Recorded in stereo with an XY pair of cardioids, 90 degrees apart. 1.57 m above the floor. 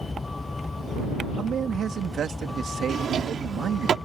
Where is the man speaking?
65° right.